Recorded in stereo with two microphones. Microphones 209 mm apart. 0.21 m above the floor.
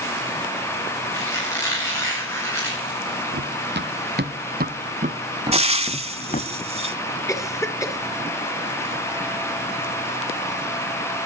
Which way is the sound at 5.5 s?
30° right (ahead or behind).